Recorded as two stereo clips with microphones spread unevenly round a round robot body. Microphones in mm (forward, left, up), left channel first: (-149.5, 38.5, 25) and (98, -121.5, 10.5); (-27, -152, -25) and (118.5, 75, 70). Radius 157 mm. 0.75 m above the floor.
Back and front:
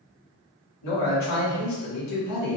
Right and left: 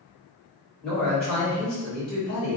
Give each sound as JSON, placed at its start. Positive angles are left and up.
{"t": 0.8, "sound": "a man speaking", "azimuth_deg": 165, "distance_m": 1.5}